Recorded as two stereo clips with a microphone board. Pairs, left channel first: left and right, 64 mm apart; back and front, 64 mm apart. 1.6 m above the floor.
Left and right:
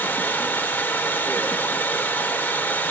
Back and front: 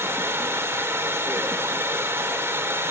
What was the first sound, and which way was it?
Running water, 35° left.